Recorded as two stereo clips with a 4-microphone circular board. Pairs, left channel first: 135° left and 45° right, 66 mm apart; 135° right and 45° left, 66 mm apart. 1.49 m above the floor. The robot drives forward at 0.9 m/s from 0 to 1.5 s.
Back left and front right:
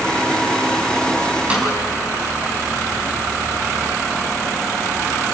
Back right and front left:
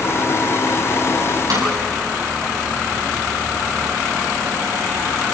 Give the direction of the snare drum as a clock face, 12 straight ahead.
11 o'clock.